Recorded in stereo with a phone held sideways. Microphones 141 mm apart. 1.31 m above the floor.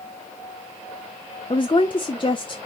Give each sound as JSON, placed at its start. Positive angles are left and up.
{"t": 1.5, "sound": "a woman speaking", "side_deg": 35, "distance_m": 0.7}